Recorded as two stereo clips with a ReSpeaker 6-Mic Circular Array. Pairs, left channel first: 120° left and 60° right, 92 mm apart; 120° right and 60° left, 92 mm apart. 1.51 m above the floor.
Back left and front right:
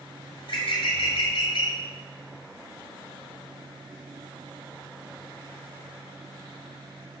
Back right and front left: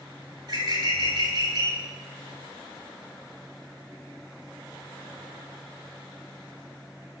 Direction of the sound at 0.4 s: 105° left.